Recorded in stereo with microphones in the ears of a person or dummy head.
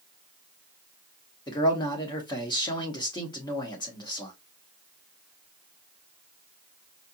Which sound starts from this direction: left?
A man speaking, at 1.5 s.